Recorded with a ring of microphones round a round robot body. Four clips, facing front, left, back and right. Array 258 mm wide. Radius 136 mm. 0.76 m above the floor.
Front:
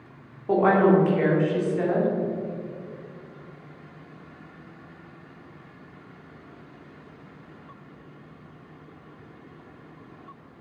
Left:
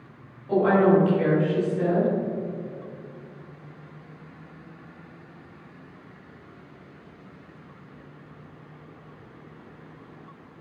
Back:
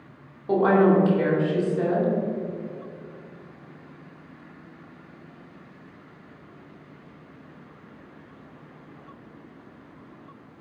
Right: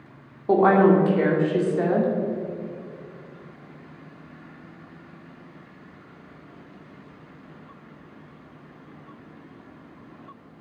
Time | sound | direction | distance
0.5 | a woman speaking | 80° right | 2 m